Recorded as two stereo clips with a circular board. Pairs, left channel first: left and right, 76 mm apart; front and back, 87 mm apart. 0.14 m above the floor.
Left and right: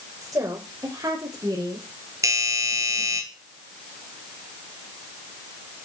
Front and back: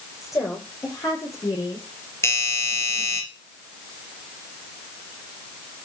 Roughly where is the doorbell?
Ahead right.